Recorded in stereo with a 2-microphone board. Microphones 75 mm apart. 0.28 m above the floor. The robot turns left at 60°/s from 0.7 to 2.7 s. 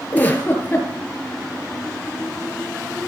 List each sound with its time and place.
0.1 s a giggle: 20° left (ahead or behind), 4.5 m; by 0.9 s 10° left (ahead or behind), 4.5 m